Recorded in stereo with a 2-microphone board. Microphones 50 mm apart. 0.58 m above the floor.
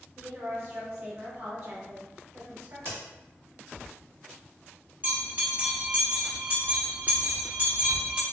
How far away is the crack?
About 1.5 m.